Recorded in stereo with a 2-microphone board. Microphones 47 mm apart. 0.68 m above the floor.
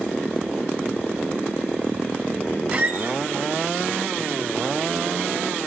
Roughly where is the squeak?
Right.